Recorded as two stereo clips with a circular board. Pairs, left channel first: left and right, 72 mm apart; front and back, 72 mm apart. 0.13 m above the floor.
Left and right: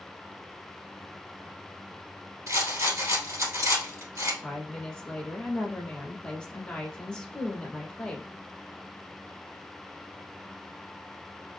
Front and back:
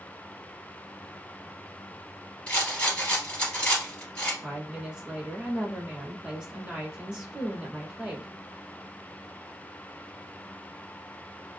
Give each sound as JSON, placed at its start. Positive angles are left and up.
{"t": 2.5, "sound": "a rattle", "azimuth_deg": -70, "distance_m": 1.8}
{"t": 4.4, "sound": "a woman speaking", "azimuth_deg": 135, "distance_m": 1.1}